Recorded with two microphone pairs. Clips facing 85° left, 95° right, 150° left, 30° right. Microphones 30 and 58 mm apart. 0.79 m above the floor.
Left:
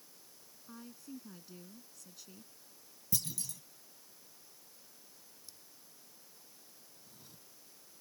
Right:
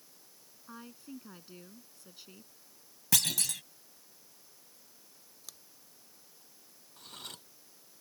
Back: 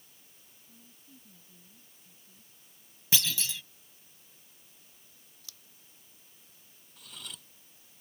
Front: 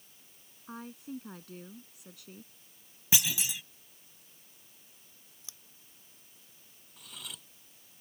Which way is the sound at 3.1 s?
105° right.